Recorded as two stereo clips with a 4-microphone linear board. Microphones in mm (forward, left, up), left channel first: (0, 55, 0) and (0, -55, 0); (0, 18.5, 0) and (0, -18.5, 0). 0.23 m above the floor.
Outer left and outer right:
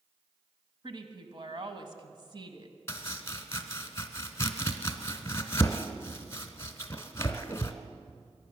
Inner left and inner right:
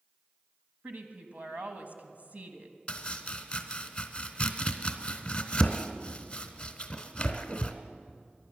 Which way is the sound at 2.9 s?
25° left (ahead or behind).